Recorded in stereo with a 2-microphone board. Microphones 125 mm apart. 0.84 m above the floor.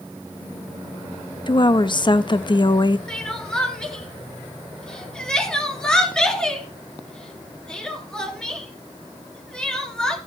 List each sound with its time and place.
1.5 s a woman speaking: 40° left (ahead or behind), 0.6 m
3.1 s crying: 5° left (ahead or behind), 3 m